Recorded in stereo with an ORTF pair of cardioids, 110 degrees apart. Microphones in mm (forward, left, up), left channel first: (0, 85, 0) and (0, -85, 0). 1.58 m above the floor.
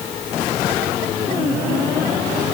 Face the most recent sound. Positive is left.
No sound to turn to.